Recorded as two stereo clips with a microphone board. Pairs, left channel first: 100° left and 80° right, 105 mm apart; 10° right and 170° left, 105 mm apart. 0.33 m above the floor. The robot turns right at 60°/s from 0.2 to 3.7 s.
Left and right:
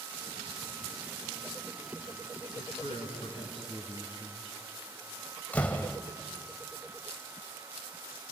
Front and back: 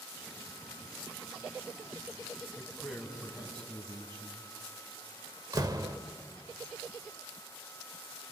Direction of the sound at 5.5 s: 165° left.